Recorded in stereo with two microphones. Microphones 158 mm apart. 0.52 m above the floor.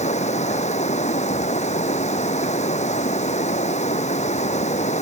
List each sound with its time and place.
0.0 s running water: 45° left (ahead or behind)